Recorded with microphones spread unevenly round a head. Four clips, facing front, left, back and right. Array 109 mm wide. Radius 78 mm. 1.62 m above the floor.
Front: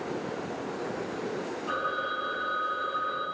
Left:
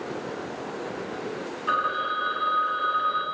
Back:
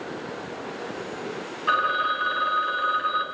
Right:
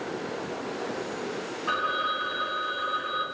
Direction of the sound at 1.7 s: 175° left.